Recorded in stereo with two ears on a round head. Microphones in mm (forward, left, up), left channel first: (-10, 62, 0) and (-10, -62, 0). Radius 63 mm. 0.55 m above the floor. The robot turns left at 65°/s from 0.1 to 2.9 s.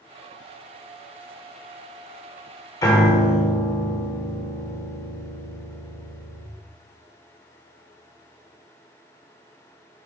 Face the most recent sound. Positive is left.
turn(degrees=25)  # may be behind; listen again after turning